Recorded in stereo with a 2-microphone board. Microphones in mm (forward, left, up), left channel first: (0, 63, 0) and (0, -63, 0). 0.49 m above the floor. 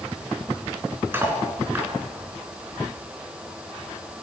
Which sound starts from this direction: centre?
Cutlery clinking, at 1.1 s.